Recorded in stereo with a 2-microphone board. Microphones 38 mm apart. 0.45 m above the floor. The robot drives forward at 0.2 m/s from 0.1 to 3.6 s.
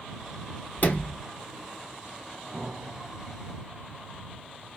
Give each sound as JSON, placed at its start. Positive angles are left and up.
{"t": 0.8, "sound": "a sliding door", "side_deg": 45, "distance_m": 1.4}
{"t": 2.5, "sound": "an explosion", "side_deg": -30, "distance_m": 1.5}